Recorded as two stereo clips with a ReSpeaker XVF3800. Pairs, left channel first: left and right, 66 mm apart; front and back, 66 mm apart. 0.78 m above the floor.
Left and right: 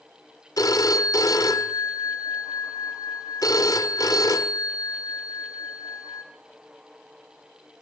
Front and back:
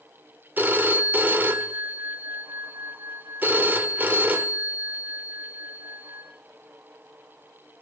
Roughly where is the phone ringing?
Behind left.